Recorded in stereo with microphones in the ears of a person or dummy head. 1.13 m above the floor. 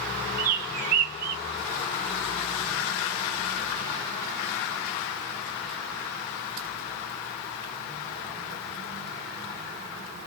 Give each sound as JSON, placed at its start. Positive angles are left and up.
{"t": 0.4, "sound": "a bird", "side_deg": -45, "distance_m": 0.9}